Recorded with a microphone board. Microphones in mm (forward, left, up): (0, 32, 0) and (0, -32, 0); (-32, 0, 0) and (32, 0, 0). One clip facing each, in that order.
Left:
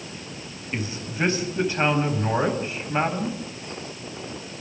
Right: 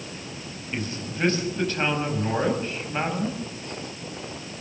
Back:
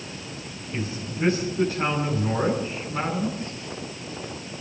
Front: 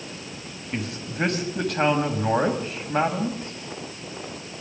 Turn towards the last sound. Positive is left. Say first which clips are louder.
# left 1 dB, front 1 dB
turn(degrees=15)